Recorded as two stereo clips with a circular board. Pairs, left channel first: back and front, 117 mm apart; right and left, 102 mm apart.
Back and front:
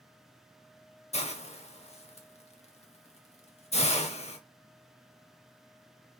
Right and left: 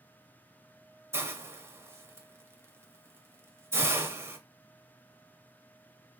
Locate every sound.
1.1 s a hiss: 155° left, 0.5 m